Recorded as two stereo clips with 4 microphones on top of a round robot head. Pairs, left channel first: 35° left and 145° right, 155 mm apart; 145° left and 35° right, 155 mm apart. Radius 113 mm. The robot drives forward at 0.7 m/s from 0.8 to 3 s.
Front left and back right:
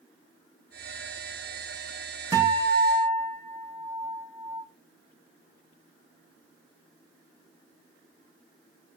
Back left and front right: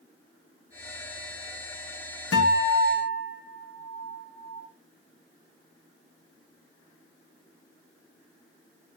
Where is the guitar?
140° left, 2.5 m; by 4.6 s 145° left, 3 m.